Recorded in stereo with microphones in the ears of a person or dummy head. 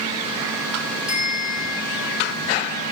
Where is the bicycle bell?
35° left (ahead or behind), 5 m.